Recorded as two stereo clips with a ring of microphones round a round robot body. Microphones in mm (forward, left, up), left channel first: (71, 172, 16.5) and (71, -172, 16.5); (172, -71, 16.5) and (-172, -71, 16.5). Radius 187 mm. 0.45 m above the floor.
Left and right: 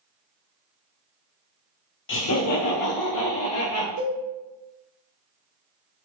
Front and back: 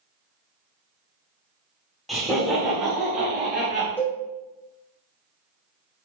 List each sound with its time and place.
2.1 s laughter: 90° left, 0.8 m
4.0 s a cowbell: 85° right, 1.5 m